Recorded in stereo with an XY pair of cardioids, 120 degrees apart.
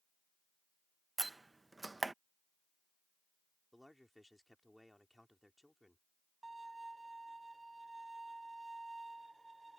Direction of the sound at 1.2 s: 15° right.